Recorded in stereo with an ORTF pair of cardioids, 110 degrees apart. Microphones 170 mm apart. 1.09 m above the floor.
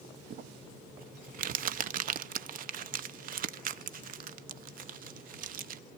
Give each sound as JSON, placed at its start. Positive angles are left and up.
{"t": 0.3, "sound": "crumpling", "azimuth_deg": -55, "distance_m": 0.6}